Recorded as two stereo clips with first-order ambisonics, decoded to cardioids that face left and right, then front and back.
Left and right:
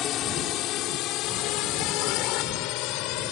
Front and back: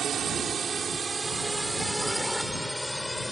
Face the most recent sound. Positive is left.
turn(degrees=80)